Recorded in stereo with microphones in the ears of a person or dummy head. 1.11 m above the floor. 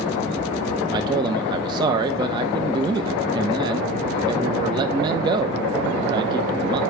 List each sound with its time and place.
0.9 s a man speaking: 25° right (ahead or behind), 0.5 m